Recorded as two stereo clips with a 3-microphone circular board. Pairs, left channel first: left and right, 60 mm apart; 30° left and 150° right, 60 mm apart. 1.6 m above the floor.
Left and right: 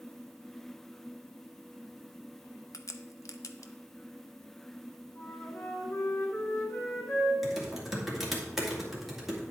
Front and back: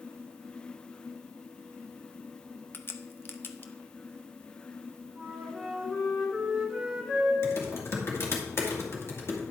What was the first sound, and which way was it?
A crack, 80° left.